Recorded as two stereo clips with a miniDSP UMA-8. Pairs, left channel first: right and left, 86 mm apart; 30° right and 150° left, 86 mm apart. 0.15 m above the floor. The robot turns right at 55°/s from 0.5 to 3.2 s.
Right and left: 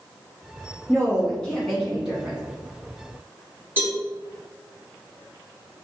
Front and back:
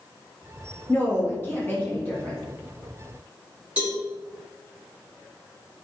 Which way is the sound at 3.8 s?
100° left.